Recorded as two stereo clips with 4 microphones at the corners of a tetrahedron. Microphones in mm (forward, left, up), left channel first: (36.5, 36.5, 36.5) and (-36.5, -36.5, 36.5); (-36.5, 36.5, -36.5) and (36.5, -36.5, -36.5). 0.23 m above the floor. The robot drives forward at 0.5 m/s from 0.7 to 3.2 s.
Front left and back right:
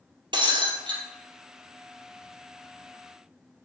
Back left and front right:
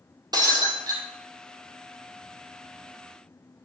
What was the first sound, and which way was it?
Breaking glass, 95° right.